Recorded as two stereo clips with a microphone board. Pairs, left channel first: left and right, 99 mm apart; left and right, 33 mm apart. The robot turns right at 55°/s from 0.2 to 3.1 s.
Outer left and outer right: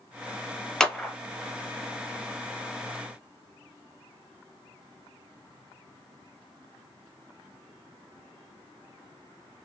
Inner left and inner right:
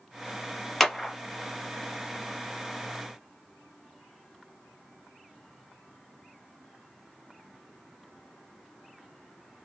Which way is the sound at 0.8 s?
5° left (ahead or behind).